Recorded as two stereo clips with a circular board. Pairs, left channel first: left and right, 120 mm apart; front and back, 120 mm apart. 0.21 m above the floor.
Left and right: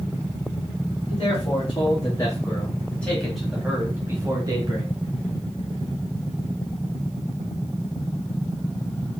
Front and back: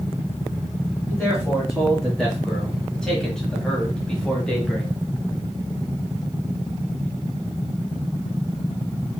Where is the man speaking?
90° left, 1.6 m; by 4.9 s 80° right, 1.3 m.